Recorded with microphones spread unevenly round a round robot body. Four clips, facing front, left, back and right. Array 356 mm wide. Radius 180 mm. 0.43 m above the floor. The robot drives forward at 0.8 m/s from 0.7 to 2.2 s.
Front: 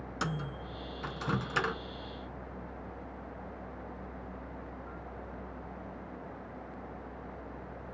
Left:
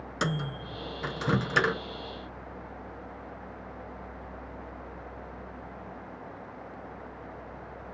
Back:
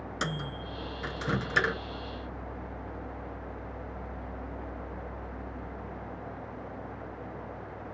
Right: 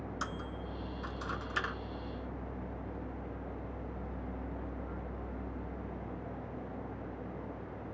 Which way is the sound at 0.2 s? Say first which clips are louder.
Left 12 dB, back 1 dB; 90° left.